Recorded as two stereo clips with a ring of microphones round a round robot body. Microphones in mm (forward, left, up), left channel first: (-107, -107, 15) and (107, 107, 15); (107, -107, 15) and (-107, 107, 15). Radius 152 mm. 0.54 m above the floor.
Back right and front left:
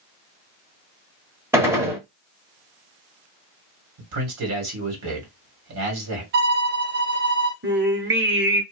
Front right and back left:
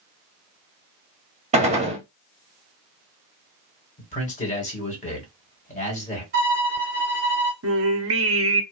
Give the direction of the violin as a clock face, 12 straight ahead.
9 o'clock.